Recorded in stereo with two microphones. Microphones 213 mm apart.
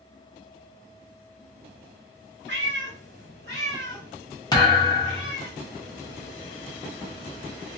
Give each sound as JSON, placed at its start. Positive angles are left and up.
{"t": 2.5, "sound": "a cat meowing", "side_deg": -60, "distance_m": 1.5}
{"t": 4.5, "sound": "a thud", "side_deg": 20, "distance_m": 0.8}